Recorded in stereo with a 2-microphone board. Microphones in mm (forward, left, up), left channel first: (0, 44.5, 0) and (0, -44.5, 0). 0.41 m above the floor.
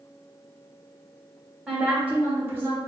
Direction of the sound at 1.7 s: 10° right (ahead or behind).